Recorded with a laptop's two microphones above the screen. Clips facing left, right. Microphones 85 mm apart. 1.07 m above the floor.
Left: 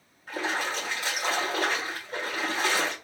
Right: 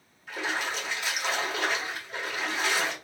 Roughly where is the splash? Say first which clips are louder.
Left 2 dB; left.